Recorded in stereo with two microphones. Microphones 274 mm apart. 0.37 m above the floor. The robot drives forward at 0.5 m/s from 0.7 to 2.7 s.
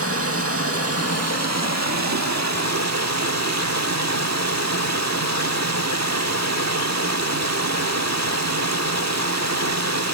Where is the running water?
55° right (ahead or behind), 1.4 m; by 10.2 s 75° right (ahead or behind), 1.2 m.